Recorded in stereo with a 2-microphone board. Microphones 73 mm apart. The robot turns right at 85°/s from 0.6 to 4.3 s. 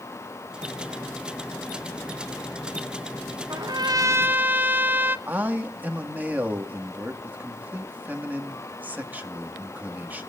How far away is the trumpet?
About 0.9 m.